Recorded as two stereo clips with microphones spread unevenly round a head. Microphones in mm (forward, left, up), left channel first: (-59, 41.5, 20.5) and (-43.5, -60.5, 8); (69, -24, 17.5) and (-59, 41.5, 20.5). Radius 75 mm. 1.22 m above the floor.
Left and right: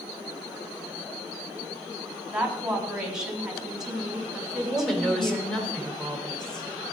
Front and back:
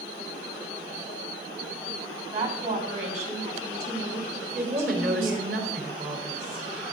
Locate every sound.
2.3 s a woman speaking: 165° right, 3.5 m
4.6 s a woman speaking: 175° right, 3.5 m